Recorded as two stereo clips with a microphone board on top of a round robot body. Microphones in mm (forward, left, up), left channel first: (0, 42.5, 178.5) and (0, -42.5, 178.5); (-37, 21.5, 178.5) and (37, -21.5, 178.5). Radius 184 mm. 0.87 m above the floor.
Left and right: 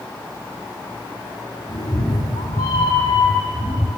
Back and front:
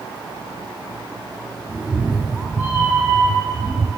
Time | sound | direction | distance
1.7 | a cat meowing | 55° left | 0.9 m